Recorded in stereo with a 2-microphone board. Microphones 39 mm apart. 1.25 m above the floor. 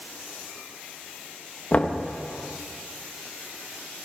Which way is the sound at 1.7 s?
35° left (ahead or behind).